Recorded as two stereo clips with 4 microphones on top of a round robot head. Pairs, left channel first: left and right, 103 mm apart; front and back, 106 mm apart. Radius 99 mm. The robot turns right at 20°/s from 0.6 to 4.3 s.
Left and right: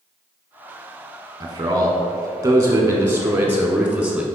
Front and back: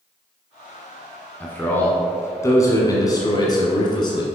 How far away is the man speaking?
About 1.1 m.